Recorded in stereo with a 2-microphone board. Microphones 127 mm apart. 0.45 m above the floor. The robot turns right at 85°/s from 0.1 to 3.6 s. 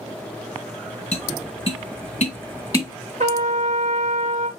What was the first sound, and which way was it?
Tapping, 10° left (ahead or behind).